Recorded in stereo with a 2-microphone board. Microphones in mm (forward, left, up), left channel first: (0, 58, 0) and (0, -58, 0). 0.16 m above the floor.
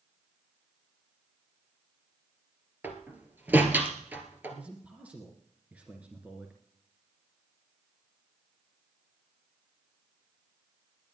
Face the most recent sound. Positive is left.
turn(degrees=-15)  # may be behind; listen again after turning